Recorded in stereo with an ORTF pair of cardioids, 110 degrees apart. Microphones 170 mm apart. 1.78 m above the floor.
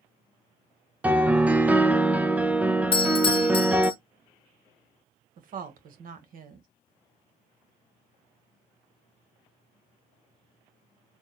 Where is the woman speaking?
50° right, 1.7 m.